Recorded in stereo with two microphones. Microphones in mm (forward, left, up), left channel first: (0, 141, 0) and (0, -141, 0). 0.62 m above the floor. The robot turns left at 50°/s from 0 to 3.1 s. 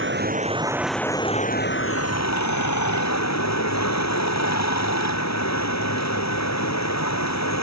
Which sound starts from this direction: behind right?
Running water, at 0.0 s.